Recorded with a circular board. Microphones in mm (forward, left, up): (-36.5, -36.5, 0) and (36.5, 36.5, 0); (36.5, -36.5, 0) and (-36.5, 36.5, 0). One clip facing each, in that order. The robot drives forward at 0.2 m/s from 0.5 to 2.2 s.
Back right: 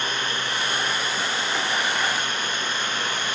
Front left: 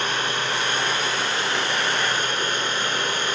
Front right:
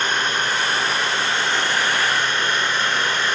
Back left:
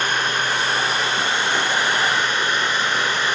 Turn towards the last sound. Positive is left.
turn(degrees=60)